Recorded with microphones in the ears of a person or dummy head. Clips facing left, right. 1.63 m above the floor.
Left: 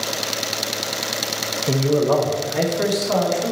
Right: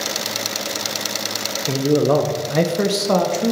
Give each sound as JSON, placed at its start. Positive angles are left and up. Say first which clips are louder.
{"t": 1.7, "sound": "a man speaking", "louder": "right 2 dB", "side_deg": 5, "distance_m": 0.6}